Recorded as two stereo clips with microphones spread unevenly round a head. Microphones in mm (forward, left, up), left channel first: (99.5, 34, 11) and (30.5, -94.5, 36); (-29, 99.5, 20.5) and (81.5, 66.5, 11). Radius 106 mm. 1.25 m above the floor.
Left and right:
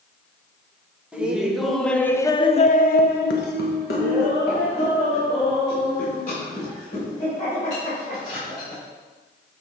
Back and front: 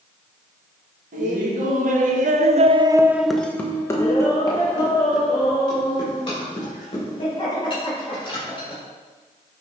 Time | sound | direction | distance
1.1 | laughter | 35° right | 1.6 m